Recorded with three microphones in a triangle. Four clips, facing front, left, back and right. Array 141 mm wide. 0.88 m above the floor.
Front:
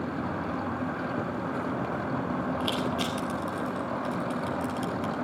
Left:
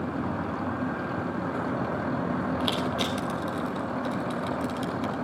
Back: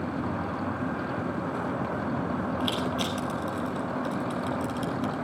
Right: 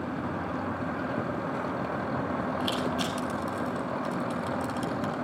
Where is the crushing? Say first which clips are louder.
Left 1 dB, even; 95° left, 4 m.